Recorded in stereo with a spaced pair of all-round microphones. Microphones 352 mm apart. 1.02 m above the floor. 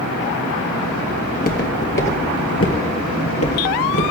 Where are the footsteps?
25° left (ahead or behind), 1.3 m; by 4.0 s 45° left (ahead or behind), 1.7 m.